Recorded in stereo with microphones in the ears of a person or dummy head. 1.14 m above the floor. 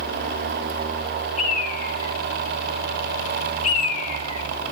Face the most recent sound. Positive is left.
turn(degrees=45)  # may be behind; listen again after turning